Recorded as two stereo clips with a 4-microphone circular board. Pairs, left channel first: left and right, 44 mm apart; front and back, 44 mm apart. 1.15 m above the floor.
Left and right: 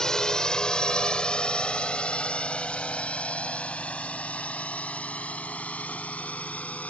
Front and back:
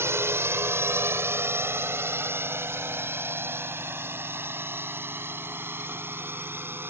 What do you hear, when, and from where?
0.0 s a drone: 165° left; by 6.9 s 145° left